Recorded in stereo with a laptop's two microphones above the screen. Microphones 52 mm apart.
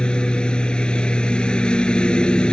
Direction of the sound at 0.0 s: 20° left (ahead or behind).